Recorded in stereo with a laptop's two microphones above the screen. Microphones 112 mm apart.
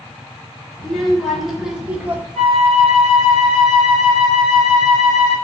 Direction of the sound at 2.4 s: Centre (ahead or behind).